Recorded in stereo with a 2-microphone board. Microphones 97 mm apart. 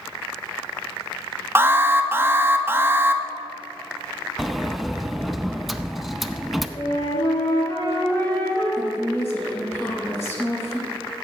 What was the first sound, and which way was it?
An alarm, 25° right (ahead or behind).